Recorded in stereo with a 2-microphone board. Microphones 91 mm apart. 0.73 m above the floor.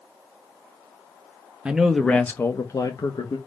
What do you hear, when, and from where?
1.6 s a man speaking: 10° right (ahead or behind), 0.6 m; by 3.4 s 55° left (ahead or behind), 0.9 m